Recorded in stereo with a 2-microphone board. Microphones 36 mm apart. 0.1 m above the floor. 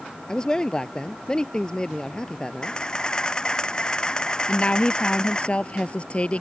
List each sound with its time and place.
0.3 s a man speaking: 20° left (ahead or behind)
2.6 s a camera shutter: 20° left (ahead or behind)
4.5 s a woman speaking: 35° left (ahead or behind)